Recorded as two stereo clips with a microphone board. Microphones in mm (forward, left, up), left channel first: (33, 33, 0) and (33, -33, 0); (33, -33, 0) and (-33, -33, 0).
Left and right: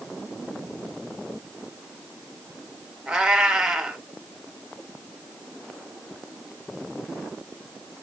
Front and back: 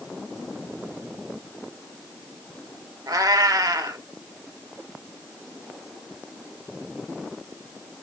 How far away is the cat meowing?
About 0.6 m.